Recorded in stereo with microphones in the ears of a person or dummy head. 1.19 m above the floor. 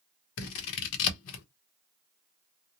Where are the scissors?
70° left (ahead or behind), 0.8 m.